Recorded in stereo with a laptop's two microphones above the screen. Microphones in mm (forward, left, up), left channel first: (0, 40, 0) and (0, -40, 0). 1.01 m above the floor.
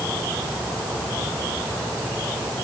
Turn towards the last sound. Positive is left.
No sound to turn to.